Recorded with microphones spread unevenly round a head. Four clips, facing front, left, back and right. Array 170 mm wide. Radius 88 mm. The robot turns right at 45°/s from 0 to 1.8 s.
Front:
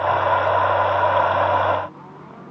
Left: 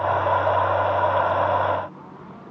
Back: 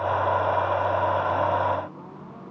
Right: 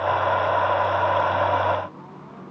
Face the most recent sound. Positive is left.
No sound to turn to.